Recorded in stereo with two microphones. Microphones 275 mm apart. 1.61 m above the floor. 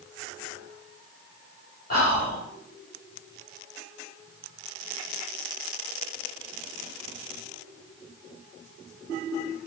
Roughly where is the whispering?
Left.